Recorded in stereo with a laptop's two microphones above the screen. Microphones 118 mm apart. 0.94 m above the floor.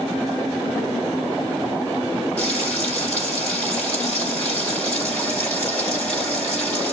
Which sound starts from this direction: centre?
Frying, at 2.4 s.